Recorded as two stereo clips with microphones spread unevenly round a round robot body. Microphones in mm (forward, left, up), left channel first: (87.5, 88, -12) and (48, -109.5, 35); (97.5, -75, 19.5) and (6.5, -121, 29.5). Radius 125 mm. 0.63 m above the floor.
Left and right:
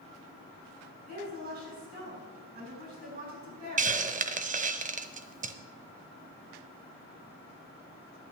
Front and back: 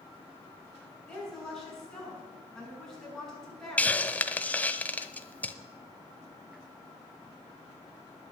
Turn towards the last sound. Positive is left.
turn(degrees=-50)